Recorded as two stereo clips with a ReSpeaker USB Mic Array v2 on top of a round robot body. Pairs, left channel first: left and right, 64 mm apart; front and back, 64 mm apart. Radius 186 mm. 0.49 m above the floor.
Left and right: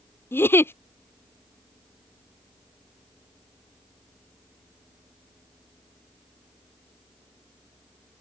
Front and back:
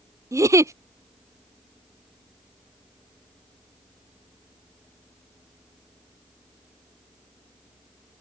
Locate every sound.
0.3 s a giggle: 145° left